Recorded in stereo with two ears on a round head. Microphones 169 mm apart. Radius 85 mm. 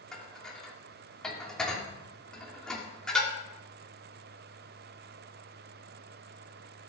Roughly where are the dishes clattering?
Centre.